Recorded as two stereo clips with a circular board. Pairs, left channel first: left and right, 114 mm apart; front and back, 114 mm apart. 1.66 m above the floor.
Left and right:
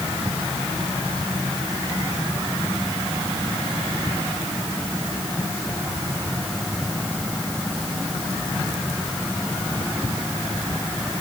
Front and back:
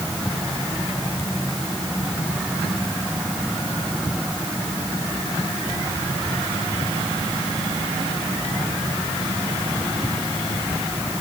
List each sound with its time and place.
Only background noise.